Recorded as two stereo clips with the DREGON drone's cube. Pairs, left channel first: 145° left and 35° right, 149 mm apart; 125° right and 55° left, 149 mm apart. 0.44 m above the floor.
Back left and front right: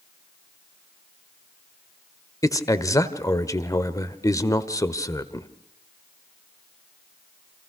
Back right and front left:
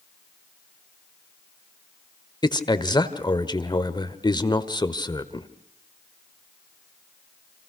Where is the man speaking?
160° right, 1.2 m.